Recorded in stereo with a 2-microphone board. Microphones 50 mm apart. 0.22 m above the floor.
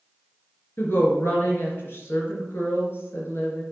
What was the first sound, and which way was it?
A woman speaking, 55° left (ahead or behind).